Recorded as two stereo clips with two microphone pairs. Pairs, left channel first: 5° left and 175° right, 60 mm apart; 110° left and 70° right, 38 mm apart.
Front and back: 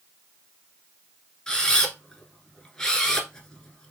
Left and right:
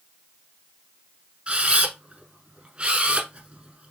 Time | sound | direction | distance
1.5 | a camera shutter | 60° right | 1.0 m